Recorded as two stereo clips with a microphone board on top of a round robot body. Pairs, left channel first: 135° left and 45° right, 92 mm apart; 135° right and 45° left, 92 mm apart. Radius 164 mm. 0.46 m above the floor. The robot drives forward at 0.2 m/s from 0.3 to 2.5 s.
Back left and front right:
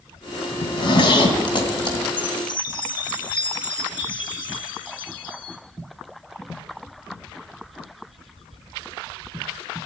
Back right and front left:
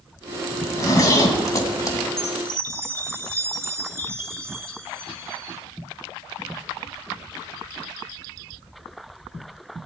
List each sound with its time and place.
0.6 s a zipper: 170° left, 2.5 m
2.2 s a chime: 105° left, 2 m